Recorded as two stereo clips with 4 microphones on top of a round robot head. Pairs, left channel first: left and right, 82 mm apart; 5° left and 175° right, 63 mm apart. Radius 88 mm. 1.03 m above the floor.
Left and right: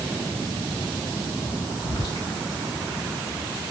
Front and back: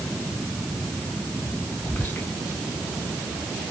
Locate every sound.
1.8 s whispering: 60° left, 0.9 m